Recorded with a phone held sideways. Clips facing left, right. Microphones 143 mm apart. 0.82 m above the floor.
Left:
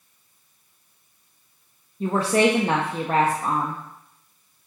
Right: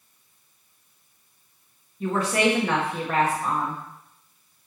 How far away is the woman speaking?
About 1.1 m.